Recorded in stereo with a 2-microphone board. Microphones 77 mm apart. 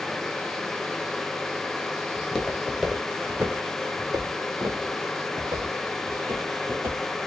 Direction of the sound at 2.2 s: 15° left (ahead or behind).